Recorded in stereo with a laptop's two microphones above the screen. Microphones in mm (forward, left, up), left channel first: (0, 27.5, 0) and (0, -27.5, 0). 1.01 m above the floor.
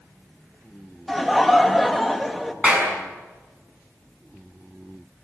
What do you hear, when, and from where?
1.1 s laughter: centre (ahead or behind), 1.4 m
2.6 s a clap: 20° right (ahead or behind), 6.5 m